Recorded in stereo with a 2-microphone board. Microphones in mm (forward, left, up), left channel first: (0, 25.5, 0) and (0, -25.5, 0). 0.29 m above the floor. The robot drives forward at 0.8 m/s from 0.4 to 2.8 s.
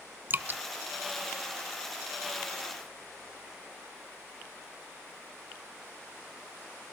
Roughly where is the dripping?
Right.